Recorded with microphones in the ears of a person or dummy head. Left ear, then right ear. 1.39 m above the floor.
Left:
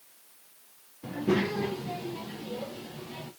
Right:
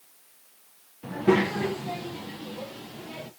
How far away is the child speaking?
About 0.6 m.